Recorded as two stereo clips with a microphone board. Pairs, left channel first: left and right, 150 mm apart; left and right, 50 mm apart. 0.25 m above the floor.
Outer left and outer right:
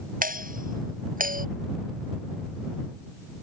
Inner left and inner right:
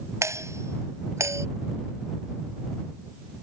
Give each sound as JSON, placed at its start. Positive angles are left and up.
{"t": 0.2, "sound": "a doorbell", "side_deg": -75}